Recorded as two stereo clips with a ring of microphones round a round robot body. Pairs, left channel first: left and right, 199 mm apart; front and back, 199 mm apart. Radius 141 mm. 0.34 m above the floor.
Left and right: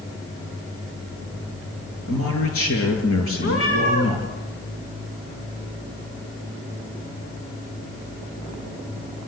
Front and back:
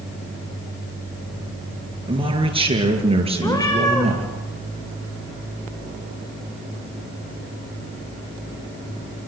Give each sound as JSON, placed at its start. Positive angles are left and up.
{"t": 2.1, "sound": "a man speaking", "azimuth_deg": 115, "distance_m": 7.0}
{"t": 3.4, "sound": "a cat meowing", "azimuth_deg": 70, "distance_m": 7.5}